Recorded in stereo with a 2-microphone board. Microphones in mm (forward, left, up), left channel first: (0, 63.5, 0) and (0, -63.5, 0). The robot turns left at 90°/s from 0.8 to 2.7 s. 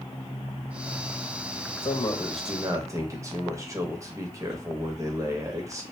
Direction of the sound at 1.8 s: 55° left.